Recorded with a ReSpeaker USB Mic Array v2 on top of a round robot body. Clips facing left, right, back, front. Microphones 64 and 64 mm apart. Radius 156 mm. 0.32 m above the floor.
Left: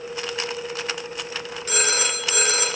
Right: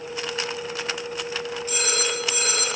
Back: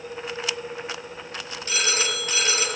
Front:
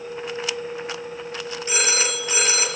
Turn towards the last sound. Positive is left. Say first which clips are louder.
# left 4 dB, front 2 dB
turn(degrees=70)